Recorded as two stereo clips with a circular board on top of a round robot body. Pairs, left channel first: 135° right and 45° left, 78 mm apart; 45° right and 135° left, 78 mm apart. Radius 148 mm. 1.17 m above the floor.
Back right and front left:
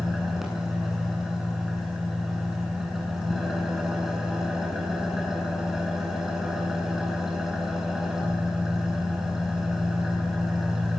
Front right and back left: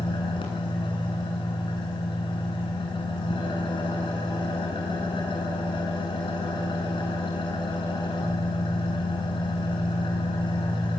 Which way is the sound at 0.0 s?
40° right.